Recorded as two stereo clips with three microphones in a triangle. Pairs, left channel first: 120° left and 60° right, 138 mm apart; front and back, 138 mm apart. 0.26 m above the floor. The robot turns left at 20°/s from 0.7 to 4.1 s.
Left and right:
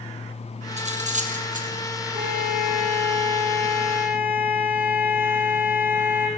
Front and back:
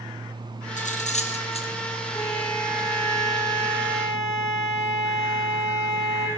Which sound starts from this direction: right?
A violin, at 2.1 s.